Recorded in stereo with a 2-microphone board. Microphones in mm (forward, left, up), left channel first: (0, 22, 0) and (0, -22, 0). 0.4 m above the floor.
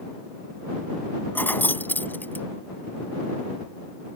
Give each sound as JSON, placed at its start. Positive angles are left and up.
{"t": 1.4, "sound": "keys jangling", "side_deg": 50}